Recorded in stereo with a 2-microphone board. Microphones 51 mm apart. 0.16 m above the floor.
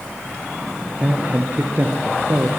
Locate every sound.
1.0 s a man speaking: 30° right (ahead or behind), 3 m; by 2.5 s 55° right (ahead or behind), 3.5 m